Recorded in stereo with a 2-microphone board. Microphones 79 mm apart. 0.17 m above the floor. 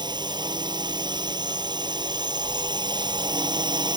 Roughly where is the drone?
Right.